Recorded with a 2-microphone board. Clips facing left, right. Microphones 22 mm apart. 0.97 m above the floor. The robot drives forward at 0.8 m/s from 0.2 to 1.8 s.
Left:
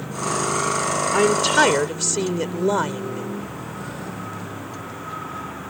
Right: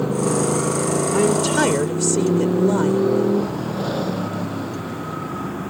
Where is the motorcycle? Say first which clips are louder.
Right 5 dB; 55° right (ahead or behind).